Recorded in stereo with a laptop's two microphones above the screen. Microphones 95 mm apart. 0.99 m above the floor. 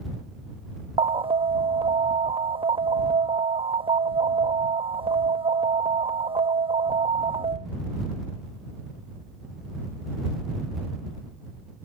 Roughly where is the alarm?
Right.